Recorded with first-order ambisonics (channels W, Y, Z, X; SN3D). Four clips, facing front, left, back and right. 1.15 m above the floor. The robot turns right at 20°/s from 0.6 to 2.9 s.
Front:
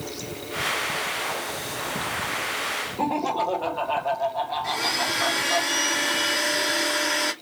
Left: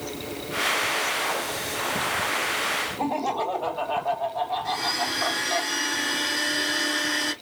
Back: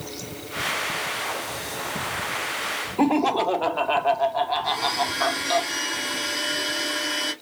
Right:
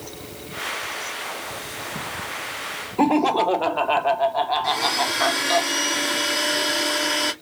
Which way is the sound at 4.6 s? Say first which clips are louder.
Right 4 dB, back 1 dB; 70° right.